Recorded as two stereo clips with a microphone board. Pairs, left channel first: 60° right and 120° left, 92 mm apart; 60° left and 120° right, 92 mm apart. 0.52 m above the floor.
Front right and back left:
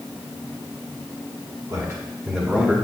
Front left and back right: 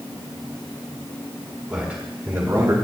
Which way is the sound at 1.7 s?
160° left.